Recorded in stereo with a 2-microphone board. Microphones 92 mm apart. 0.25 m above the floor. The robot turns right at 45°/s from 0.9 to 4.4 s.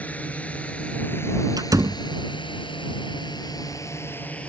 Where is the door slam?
50° right (ahead or behind); by 2.0 s 30° right (ahead or behind).